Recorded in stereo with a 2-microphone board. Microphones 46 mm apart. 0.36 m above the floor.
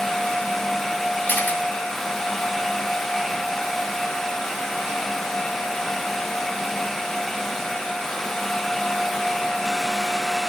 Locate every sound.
1.3 s a camera shutter: 45° left (ahead or behind), 2.5 m